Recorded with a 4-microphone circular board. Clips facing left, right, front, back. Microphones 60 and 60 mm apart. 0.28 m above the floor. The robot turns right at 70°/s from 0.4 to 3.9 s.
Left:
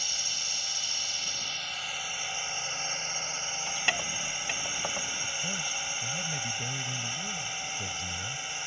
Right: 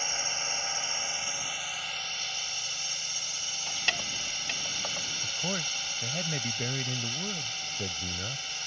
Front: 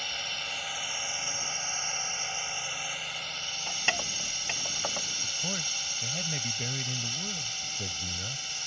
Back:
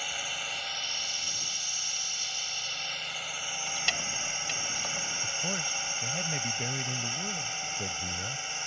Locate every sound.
0.0 s a drone: 100° right; by 8.7 s 145° left
3.7 s keys jangling: 10° left; by 5.1 s 30° left
5.2 s a man speaking: 105° right